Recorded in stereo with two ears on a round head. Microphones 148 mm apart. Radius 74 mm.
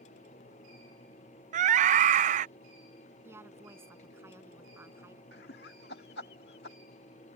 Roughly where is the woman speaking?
Centre.